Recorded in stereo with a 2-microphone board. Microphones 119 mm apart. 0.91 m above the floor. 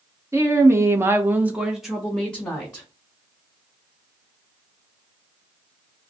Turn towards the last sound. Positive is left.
turn(degrees=15)  # may be behind; listen again after turning